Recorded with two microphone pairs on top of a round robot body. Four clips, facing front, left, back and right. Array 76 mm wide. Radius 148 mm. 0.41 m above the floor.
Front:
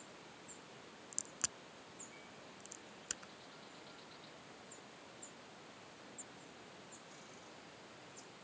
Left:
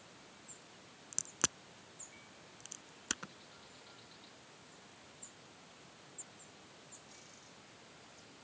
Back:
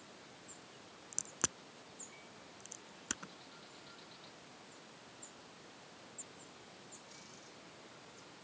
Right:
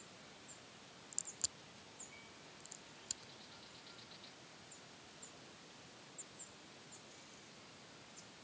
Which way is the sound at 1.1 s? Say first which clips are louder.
Left 19 dB, back 8 dB; 115° left.